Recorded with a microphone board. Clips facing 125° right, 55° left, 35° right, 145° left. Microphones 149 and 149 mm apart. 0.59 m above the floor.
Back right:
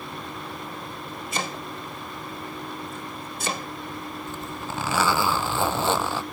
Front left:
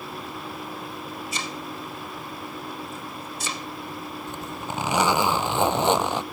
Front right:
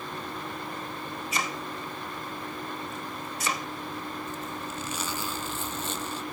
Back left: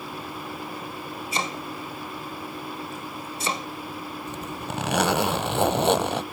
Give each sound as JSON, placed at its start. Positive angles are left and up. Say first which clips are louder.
{"t": 1.3, "sound": "chopping", "louder": "back right 1 dB, back left 3 dB", "azimuth_deg": -155}
{"t": 4.3, "sound": "a zipper", "louder": "even, back left 3 dB", "azimuth_deg": 125}